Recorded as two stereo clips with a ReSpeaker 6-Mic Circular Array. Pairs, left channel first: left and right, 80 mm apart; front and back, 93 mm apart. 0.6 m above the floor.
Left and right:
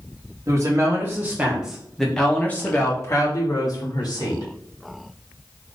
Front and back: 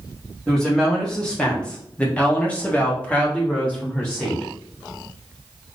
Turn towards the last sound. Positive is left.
turn(degrees=75)